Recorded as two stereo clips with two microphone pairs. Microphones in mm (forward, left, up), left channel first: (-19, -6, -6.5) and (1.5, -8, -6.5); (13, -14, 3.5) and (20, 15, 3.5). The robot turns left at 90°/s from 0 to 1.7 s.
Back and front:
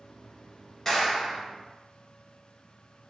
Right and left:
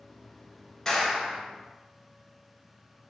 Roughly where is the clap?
Behind.